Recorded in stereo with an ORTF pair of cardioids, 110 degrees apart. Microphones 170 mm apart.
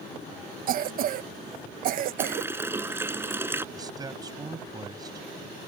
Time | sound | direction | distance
0.7 | a cough | 60° right | ?
2.2 | a running tap | 15° right | ?
3.8 | a man speaking | 20° right | ?